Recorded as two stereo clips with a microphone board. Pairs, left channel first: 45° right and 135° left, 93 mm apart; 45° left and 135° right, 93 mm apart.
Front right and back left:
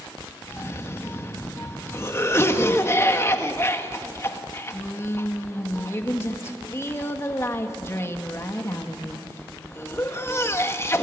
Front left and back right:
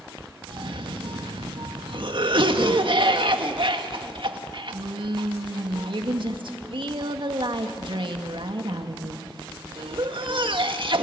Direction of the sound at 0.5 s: 105° right.